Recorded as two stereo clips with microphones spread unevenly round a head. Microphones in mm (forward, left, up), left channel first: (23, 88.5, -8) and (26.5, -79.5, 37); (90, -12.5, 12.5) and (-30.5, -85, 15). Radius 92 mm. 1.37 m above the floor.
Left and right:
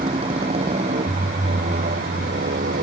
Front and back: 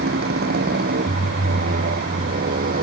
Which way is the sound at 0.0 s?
150° right.